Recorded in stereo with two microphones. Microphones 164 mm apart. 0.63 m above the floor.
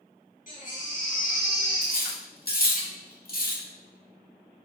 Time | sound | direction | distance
0.5 | a baby crying | 55° left (ahead or behind) | 3 m
1.8 | cutlery clinking | 65° left (ahead or behind) | 1.4 m